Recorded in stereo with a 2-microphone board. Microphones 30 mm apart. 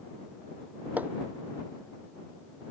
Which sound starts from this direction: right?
Hammering, at 1.0 s.